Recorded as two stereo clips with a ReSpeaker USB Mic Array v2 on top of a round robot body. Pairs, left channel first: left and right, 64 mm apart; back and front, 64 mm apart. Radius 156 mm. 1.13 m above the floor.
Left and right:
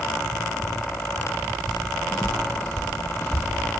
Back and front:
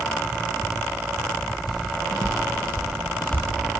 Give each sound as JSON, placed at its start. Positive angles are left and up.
{"t": 1.7, "sound": "footsteps", "azimuth_deg": 175, "distance_m": 2.5}